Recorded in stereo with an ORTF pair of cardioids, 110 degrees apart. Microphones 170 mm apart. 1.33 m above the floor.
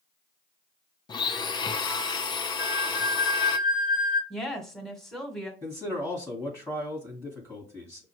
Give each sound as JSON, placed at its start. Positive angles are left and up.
{"t": 1.1, "sound": "a blender", "azimuth_deg": 25, "distance_m": 0.6}
{"t": 2.6, "sound": "a flute", "azimuth_deg": 0, "distance_m": 1.6}
{"t": 4.3, "sound": "a woman speaking", "azimuth_deg": 5, "distance_m": 1.5}
{"t": 5.6, "sound": "a man speaking", "azimuth_deg": 10, "distance_m": 1.4}